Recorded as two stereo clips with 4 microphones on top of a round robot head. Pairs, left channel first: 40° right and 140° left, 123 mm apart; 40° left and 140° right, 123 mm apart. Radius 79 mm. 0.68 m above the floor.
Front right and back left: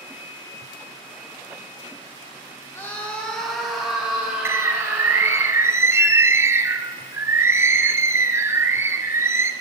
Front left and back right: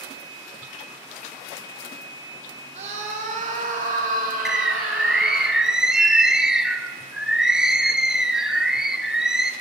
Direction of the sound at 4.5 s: 145° left.